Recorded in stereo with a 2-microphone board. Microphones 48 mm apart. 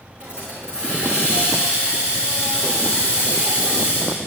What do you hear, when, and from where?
0.2 s a hiss: 20° right (ahead or behind), 4.5 m